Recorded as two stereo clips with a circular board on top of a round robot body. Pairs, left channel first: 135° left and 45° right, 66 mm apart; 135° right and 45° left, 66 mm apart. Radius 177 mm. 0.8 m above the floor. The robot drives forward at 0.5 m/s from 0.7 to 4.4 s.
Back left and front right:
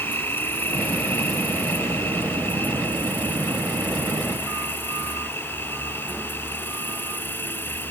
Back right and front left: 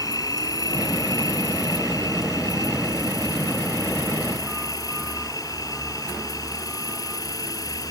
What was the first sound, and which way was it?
An insect, 165° right.